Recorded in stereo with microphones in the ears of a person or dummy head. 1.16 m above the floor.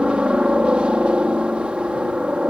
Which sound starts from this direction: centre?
A helicopter, at 0.0 s.